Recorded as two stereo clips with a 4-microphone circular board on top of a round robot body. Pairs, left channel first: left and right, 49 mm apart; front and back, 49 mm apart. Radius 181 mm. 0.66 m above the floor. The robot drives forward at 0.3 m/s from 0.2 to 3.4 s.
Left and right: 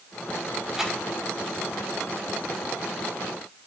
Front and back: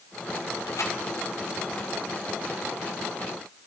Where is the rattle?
5° right, 6 m.